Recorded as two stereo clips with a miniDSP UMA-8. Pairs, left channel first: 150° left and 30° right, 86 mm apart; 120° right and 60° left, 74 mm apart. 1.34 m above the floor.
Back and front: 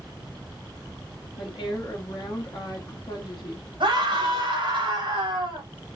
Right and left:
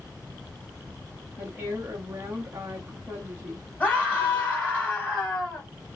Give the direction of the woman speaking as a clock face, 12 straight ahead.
8 o'clock.